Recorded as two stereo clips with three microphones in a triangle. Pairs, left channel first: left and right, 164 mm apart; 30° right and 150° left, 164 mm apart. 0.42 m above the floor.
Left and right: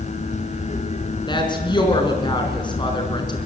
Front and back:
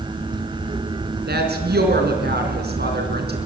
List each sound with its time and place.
1.3 s a woman speaking: 150° left, 4 m